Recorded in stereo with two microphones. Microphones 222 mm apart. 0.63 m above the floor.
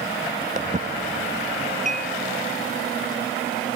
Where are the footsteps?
35° right (ahead or behind).